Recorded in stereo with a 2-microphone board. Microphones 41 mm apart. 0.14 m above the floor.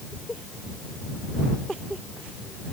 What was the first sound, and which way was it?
Only background noise.